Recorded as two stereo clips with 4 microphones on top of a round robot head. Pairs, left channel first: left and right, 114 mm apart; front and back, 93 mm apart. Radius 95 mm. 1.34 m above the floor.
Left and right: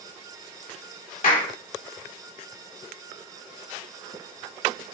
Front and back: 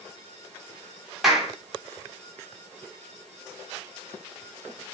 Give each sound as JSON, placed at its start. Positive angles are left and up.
{"t": 1.2, "sound": "a clap", "azimuth_deg": 90, "distance_m": 2.5}